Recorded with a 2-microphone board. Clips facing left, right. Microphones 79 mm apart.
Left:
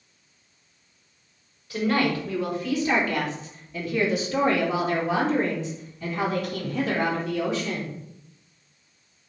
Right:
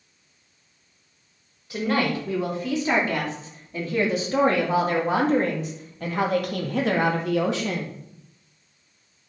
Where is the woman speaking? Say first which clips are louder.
Even; 20° right (ahead or behind), 4 m; by 7.9 s 80° right, 2 m.